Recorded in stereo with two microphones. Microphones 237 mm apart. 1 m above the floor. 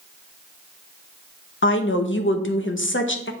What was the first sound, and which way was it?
A woman speaking, 55° left (ahead or behind).